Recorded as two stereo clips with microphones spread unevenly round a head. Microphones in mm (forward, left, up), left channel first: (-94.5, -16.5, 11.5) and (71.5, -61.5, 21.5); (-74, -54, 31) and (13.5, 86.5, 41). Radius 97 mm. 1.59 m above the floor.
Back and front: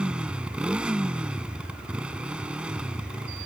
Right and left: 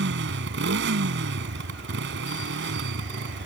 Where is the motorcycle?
70° left.